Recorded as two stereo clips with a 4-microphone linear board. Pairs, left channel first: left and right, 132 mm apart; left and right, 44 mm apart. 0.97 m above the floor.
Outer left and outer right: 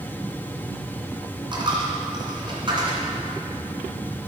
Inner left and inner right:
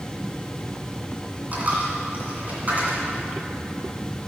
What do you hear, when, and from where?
1.5 s a dropped coin: 40° right (ahead or behind), 1.9 m